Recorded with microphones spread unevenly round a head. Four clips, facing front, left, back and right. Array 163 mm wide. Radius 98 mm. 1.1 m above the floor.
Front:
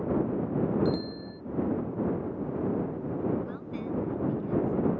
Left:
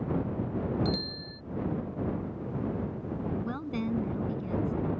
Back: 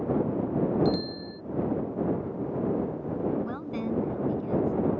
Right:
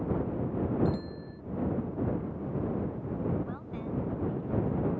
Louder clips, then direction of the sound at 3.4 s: Left 5 dB, back 4 dB; 125° left.